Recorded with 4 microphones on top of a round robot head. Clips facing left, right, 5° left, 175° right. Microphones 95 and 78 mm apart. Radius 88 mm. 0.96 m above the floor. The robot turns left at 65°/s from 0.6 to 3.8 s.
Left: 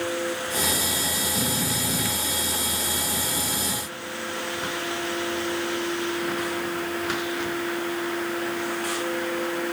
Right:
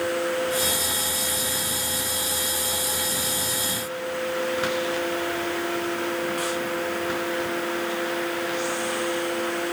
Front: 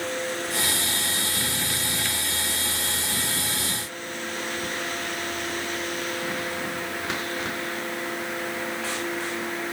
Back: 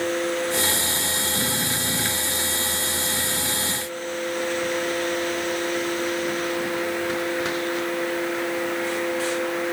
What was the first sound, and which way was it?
Only background noise.